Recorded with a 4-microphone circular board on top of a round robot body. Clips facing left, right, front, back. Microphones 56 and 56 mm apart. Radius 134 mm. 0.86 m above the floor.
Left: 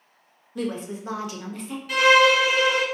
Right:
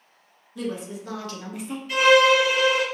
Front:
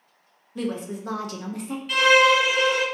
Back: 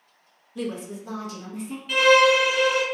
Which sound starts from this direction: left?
A violin, at 1.9 s.